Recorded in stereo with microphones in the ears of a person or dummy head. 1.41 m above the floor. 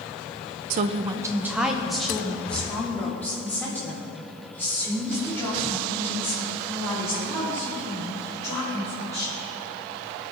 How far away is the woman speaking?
About 0.5 m.